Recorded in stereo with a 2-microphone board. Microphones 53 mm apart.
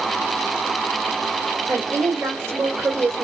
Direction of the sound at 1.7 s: 60° right (ahead or behind).